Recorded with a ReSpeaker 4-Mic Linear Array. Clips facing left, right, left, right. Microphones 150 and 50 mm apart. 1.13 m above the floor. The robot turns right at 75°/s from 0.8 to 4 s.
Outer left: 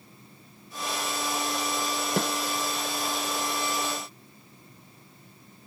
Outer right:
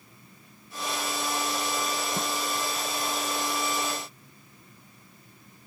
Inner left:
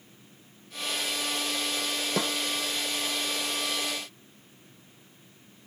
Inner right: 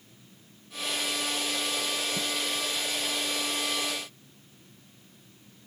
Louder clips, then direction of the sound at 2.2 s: Outer left 4 dB, inner left 4 dB; 85° left.